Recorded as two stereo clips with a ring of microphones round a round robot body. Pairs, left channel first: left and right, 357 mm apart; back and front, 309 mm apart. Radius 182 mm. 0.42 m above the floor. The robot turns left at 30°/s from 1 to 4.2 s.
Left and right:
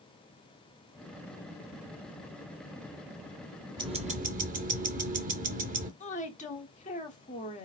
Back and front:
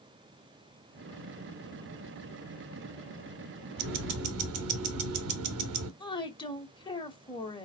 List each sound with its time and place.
3.8 s ticking: 15° right, 0.7 m; by 5.9 s 25° right, 0.7 m
6.0 s a woman speaking: 125° left, 1.1 m